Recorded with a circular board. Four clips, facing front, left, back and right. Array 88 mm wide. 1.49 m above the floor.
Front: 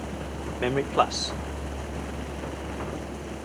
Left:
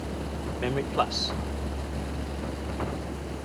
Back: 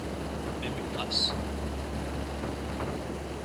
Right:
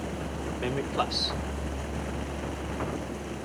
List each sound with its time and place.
0.6 s a man speaking: 10° left